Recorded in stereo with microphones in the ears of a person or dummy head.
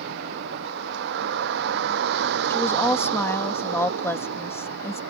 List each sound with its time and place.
0.0 s a vehicle: 60° right (ahead or behind)
2.5 s a woman speaking: 10° left (ahead or behind)